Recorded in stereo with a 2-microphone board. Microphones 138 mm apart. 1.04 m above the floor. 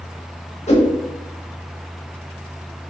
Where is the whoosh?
55° left (ahead or behind), 1.0 m.